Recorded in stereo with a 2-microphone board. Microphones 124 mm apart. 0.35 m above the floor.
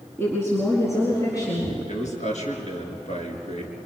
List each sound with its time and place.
0.2 s a woman speaking: 20° left (ahead or behind), 4 m; by 1.7 s 30° left (ahead or behind), 5 m
1.9 s a man speaking: 70° left (ahead or behind), 4.5 m